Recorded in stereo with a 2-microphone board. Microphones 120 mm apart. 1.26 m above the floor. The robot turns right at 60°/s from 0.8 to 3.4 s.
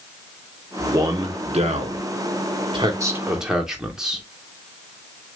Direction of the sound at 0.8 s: 20° right (ahead or behind).